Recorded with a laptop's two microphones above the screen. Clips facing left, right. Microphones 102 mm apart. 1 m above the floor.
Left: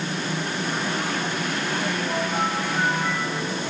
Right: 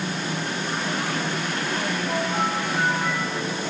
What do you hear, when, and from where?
Only background noise.